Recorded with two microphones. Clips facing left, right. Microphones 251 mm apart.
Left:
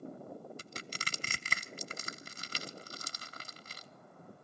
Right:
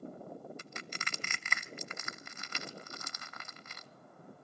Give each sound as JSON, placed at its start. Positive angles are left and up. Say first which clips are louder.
{"t": 0.6, "sound": "crushing", "louder": "even", "side_deg": 35, "distance_m": 0.7}